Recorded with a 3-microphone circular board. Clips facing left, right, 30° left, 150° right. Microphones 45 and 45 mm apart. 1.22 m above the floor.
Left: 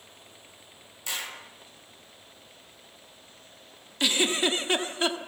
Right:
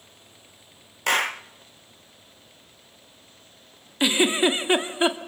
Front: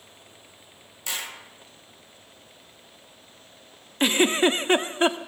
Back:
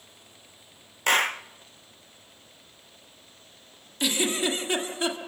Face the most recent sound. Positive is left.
turn(degrees=-20)